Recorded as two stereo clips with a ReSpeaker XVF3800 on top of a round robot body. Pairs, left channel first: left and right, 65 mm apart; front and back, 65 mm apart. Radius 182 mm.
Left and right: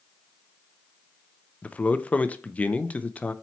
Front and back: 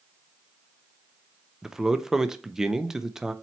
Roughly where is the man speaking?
Left.